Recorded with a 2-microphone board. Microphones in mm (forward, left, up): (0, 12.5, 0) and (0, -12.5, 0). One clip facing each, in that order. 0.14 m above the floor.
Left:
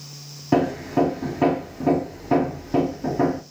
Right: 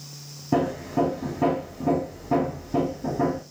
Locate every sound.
0.5 s hammering: 50° left (ahead or behind), 0.6 m